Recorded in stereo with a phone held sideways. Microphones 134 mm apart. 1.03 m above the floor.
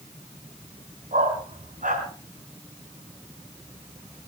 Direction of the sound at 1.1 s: 80° right.